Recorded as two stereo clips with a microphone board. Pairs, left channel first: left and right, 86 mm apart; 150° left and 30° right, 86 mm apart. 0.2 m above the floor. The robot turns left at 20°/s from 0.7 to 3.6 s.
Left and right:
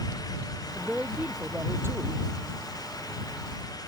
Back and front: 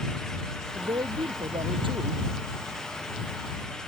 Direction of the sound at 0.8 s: 5° right.